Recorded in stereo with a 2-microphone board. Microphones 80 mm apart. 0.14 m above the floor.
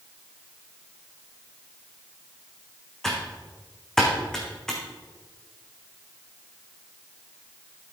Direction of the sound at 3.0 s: 5° left (ahead or behind).